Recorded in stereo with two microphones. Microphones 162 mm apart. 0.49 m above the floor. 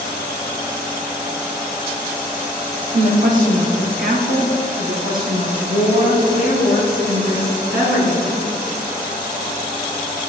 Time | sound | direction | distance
2.9 | a woman speaking | 50° right (ahead or behind) | 1.6 m